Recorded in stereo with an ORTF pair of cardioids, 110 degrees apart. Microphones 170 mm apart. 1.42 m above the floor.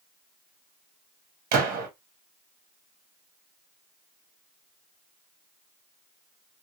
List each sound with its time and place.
1.5 s a gunshot: 65° right, 1.2 m